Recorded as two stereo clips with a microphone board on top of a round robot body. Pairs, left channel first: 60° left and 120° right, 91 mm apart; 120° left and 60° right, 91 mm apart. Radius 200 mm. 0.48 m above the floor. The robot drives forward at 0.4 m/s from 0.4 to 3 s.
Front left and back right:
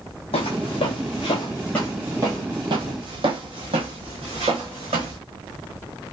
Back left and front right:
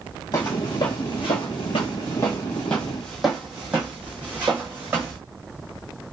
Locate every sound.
0.3 s footsteps: 65° left, 1.2 m; by 5.2 s 125° right, 2 m